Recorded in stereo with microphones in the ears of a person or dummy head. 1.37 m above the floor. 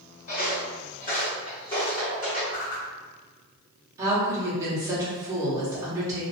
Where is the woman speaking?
20° right (ahead or behind), 1.0 m.